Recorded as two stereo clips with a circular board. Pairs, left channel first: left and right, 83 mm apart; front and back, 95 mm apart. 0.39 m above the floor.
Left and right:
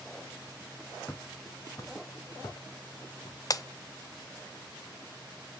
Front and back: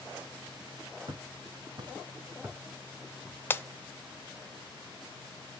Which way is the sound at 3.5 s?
60° left.